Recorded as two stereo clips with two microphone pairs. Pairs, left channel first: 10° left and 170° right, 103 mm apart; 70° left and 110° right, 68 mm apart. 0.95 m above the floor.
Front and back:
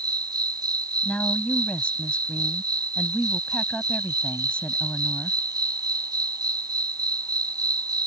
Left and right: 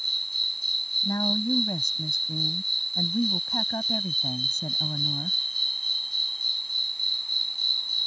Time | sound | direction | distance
0.0 | an insect | 155° left | ?
1.0 | a woman speaking | 85° left | ?